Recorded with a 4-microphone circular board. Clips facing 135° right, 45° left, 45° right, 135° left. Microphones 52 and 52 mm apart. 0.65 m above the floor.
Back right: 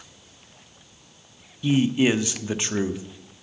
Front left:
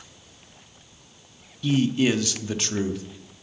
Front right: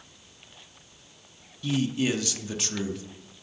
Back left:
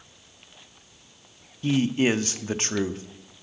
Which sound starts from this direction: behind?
A man speaking, at 1.6 s.